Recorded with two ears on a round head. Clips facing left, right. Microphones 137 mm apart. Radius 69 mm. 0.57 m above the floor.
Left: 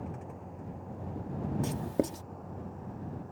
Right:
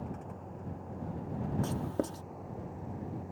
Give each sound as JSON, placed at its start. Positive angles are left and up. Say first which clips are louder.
{"t": 0.0, "sound": "a vehicle", "louder": "even", "side_deg": 5}
{"t": 1.6, "sound": "writing", "louder": "left 3 dB", "side_deg": 20}